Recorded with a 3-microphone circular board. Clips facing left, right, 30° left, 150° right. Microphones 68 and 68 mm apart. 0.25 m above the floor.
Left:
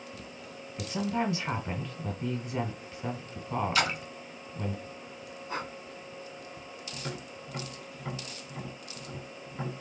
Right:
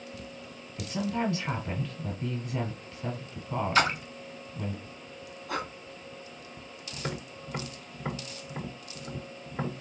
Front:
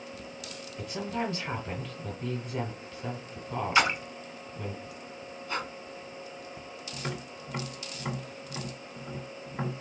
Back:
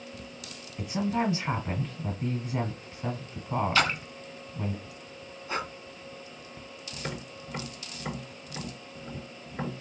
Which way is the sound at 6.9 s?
40° right.